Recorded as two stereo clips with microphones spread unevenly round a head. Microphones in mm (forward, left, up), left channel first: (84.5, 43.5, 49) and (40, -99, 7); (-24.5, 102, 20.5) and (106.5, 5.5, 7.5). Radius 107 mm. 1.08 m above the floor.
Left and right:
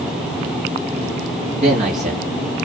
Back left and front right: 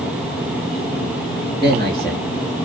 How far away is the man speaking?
About 2.5 m.